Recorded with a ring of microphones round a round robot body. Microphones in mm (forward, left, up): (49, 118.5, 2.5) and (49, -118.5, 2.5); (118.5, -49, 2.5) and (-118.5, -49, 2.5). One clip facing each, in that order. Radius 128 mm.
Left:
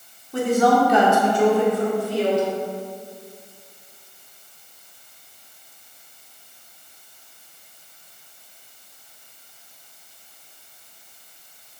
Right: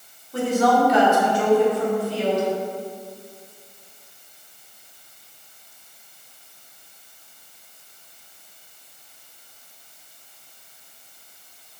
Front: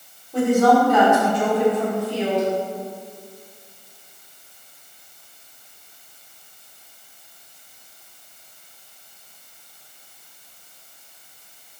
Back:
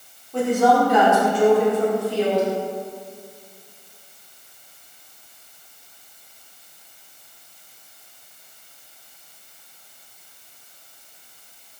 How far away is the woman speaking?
About 2 m.